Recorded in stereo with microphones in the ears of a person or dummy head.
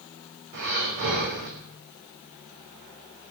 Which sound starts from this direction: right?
Breathing, at 0.5 s.